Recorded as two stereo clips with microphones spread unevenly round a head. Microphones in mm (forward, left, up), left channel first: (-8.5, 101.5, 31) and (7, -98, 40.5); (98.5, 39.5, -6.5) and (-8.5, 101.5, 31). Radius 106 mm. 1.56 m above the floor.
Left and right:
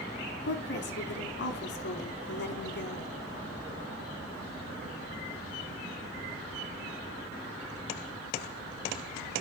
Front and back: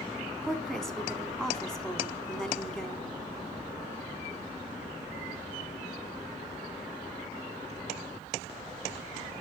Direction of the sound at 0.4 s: 55° left.